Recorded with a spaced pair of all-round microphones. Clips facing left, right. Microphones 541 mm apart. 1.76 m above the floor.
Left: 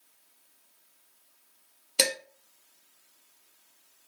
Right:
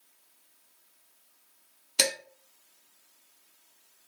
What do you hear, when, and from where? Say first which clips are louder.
2.0 s dishes clattering: left 2 dB; 10° right (ahead or behind), 0.8 m